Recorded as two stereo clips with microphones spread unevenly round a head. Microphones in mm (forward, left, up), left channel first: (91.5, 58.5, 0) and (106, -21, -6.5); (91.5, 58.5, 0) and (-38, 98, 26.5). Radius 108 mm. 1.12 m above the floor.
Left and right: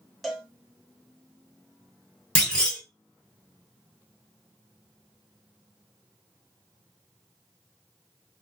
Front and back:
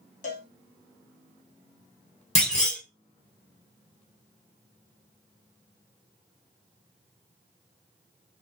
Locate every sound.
0.2 s a cowbell: 15° left, 0.9 m
2.4 s a clunk: 25° left, 1.3 m